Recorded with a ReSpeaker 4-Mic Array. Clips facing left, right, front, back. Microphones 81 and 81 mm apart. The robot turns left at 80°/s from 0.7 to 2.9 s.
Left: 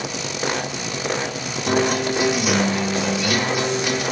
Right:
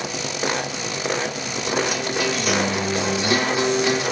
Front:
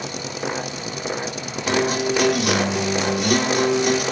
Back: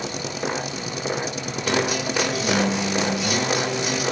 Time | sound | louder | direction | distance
1.7 | a guitar | left 5 dB, front 3 dB | 70° left | 4.5 m